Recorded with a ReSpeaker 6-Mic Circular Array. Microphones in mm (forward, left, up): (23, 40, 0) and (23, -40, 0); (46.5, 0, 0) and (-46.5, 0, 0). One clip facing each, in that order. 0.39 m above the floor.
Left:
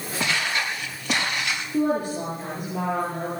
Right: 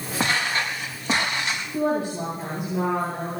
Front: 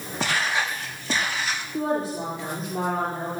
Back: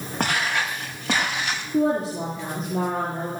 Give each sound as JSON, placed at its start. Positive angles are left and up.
{"t": 0.2, "sound": "footsteps", "azimuth_deg": -145, "distance_m": 4.5}
{"t": 1.7, "sound": "a woman speaking", "azimuth_deg": -165, "distance_m": 9.0}